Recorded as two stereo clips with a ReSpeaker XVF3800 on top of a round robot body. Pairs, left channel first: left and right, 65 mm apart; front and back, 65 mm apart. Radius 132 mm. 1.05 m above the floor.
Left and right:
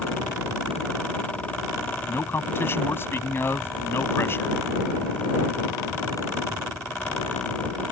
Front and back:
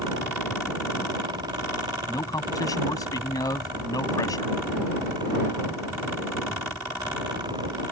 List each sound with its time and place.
2.1 s a man speaking: 35° left